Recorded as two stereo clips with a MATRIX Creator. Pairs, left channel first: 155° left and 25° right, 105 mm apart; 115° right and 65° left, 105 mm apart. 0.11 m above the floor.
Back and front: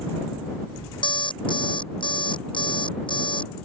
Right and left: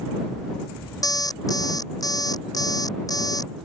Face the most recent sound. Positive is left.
turn(degrees=-165)